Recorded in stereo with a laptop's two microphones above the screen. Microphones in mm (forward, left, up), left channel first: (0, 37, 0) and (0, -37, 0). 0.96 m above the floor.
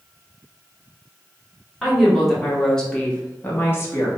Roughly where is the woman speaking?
Centre.